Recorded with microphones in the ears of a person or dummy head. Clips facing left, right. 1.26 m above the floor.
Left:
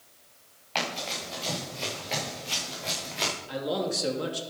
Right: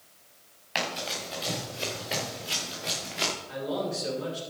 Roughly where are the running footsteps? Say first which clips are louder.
Even; centre.